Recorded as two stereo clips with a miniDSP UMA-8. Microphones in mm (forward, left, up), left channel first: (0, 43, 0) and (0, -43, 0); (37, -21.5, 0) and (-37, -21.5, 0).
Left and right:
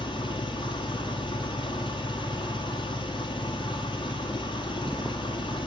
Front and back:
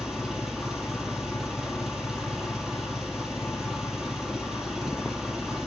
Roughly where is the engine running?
Left.